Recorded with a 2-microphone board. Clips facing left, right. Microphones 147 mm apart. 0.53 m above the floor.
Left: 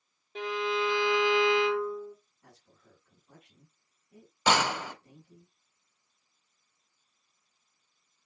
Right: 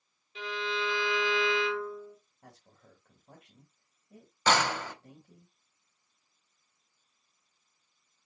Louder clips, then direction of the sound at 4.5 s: Left 1 dB; 10° left (ahead or behind).